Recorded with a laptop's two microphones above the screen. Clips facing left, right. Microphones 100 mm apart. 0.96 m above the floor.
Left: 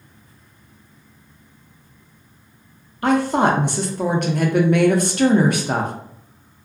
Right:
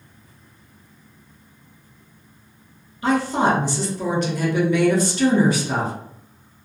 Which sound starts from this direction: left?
A woman speaking, at 3.0 s.